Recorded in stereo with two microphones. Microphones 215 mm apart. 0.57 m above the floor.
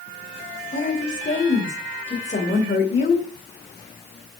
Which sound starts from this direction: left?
A woman speaking, at 0.7 s.